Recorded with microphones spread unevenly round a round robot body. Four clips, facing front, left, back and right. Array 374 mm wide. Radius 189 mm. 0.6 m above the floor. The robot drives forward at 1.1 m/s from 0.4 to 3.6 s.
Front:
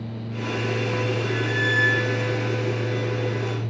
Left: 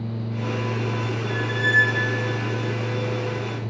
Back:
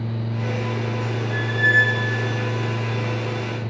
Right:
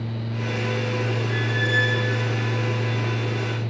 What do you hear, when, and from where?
1.3 s a squeak: 20° left, 1.5 m; by 2.1 s 50° left, 0.7 m